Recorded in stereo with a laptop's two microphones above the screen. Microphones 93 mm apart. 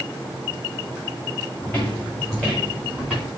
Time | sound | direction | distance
1.6 | footsteps | 10° left (ahead or behind) | 3.5 m